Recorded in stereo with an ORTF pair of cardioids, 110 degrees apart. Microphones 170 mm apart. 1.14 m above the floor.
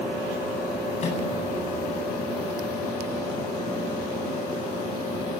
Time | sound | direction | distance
1.0 | a microwave | 40° left | 9 m